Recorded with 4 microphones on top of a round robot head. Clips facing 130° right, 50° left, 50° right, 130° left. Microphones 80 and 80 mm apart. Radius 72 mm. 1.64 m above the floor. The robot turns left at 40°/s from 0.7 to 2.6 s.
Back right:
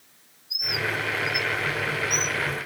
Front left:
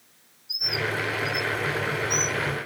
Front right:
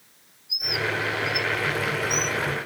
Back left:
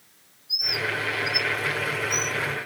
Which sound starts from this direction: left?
A bird, at 0.5 s.